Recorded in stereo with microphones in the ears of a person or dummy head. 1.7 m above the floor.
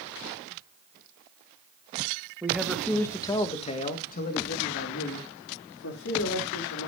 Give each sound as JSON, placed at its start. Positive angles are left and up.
{"t": 2.4, "sound": "a man speaking", "side_deg": -5, "distance_m": 1.7}